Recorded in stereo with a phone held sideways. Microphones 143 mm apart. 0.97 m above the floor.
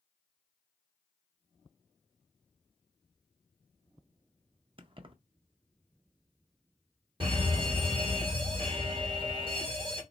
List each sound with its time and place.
4.8 s keys jangling: 40° right (ahead or behind), 0.6 m
7.2 s a fire alarm: 35° right (ahead or behind), 1.4 m